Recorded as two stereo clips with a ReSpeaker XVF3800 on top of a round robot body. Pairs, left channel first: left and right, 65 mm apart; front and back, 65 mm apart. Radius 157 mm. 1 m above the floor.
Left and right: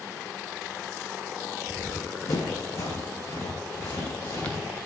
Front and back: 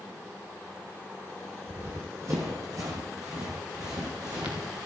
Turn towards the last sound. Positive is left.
turn(degrees=150)